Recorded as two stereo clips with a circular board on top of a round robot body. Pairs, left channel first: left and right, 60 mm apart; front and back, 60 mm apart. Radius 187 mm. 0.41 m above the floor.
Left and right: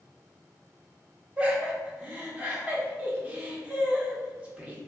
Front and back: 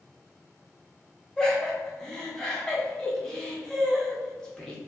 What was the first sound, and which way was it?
Laughter, 65° right.